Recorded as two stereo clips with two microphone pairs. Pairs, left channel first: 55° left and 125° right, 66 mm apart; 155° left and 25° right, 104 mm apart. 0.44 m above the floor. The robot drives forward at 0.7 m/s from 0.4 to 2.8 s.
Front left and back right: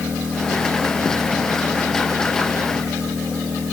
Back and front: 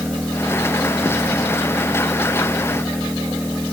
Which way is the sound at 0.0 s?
125° right.